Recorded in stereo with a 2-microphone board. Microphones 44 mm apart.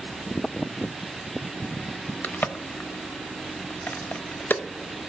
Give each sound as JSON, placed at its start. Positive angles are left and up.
{"t": 2.2, "sound": "a crack", "side_deg": 45, "distance_m": 0.5}